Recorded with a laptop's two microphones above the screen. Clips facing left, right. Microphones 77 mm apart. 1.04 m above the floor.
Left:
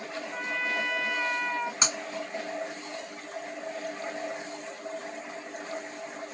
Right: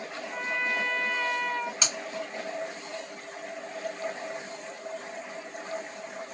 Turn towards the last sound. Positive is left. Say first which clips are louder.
# left 3 dB
turn(degrees=30)  # may be behind; listen again after turning